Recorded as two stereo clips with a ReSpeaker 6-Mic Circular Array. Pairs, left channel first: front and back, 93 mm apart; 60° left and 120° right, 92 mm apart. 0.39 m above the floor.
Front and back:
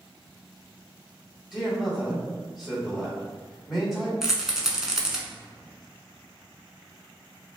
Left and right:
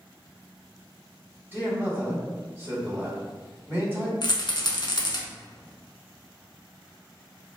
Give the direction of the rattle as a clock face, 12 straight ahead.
9 o'clock.